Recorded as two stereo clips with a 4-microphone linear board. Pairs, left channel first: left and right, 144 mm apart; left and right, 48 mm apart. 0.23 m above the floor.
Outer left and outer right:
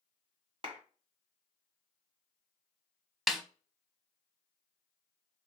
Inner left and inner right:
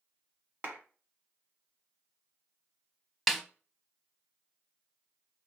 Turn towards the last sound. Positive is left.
turn(degrees=0)  # may be behind; listen again after turning